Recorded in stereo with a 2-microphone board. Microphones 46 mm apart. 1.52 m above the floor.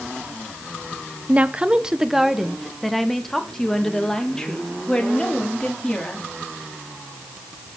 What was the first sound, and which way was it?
A woman speaking, 35° right (ahead or behind).